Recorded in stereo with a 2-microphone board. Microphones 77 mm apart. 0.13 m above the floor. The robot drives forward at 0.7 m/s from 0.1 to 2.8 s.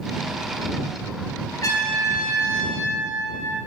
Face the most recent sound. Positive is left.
turn(degrees=55)  # may be behind; listen again after turning